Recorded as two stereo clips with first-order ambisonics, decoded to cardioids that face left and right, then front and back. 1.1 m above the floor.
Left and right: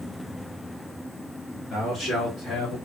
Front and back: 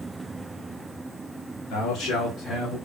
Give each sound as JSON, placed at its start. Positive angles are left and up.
{"t": 1.7, "sound": "a man speaking", "azimuth_deg": 15, "distance_m": 2.0}